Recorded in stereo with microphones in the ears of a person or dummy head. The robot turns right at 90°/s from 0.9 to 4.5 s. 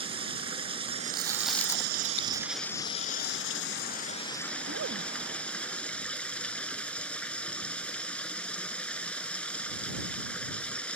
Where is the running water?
150° right; by 11.0 s 175° left.